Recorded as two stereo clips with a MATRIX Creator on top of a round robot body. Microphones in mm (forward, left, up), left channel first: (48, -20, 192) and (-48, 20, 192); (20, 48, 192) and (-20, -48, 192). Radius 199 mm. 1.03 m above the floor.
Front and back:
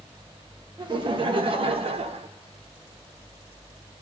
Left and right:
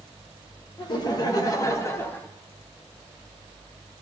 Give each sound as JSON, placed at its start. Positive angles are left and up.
{"t": 0.8, "sound": "laughter", "azimuth_deg": 115, "distance_m": 1.5}